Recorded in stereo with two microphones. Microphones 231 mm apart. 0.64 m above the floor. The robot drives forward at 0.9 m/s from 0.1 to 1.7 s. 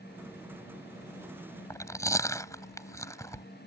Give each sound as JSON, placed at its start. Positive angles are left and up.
{"t": 1.7, "sound": "chewing", "side_deg": 15}